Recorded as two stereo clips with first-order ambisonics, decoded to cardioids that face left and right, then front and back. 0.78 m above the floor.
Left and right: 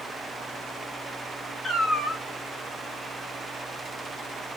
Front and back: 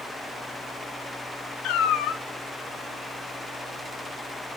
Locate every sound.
1.6 s a cat meowing: 5° right, 1.4 m